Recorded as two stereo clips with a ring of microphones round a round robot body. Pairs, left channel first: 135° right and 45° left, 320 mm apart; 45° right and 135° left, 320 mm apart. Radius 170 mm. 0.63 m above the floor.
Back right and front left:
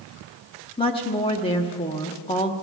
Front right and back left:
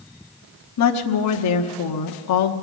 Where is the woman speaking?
65° right, 1.1 m.